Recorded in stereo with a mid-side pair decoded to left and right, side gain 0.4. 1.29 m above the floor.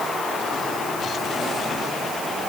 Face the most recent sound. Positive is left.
No sound to turn to.